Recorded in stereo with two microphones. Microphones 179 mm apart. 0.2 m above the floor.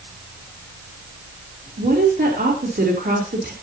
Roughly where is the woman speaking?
Right.